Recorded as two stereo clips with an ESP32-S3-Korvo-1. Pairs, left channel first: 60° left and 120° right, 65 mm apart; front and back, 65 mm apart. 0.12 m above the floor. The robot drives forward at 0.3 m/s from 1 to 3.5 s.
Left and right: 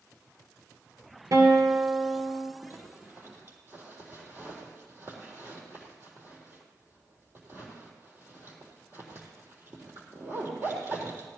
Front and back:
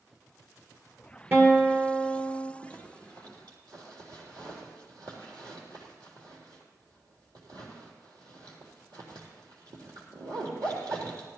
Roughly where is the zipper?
Behind.